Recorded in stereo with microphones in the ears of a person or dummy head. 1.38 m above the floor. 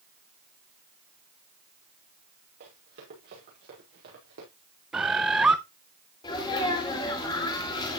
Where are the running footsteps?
60° right (ahead or behind), 6 m.